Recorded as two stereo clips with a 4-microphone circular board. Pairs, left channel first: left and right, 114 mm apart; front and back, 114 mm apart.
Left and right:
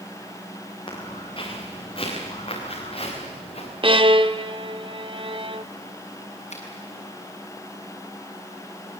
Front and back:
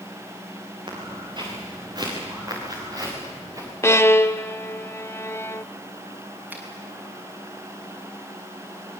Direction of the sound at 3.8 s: 60° right.